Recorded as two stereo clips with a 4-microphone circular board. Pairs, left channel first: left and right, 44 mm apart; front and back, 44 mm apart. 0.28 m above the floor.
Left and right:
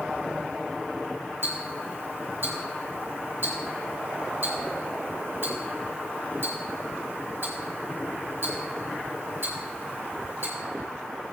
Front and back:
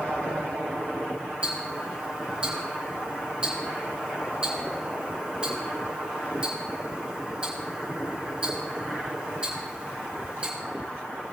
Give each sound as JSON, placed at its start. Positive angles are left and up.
{"t": 1.4, "sound": "ticking", "azimuth_deg": -115, "distance_m": 3.5}